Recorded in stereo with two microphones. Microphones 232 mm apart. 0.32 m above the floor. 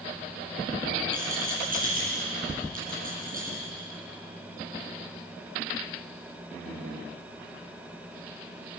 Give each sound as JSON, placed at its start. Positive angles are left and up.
{"t": 1.1, "sound": "a rattle", "side_deg": -35, "distance_m": 9.5}